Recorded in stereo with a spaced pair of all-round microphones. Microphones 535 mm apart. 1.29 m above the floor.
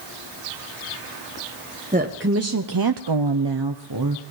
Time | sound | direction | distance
1.9 | a woman speaking | 15° right (ahead or behind) | 1.0 m